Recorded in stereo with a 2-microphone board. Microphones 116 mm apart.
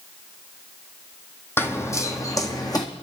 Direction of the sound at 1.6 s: 20° left (ahead or behind).